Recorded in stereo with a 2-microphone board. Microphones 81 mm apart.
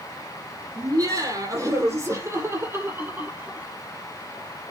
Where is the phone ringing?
I don't hear a phone ringing.